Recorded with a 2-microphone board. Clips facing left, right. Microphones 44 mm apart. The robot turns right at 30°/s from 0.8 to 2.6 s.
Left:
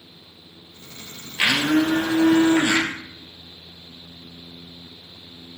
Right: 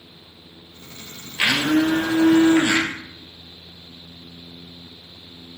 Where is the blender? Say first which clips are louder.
Even; 165° left, 1.1 m; by 2.9 s 155° right, 1.1 m.